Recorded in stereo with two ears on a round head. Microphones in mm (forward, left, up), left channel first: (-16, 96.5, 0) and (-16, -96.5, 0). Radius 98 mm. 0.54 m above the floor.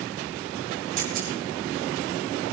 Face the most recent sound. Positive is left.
turn(degrees=-40)  # may be behind; listen again after turning